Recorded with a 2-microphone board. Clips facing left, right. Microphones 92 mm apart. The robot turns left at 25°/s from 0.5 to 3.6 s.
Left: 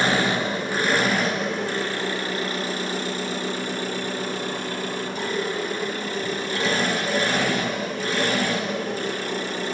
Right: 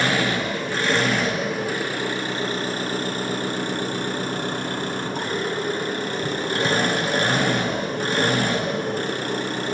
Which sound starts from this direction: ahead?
An engine running, at 0.0 s.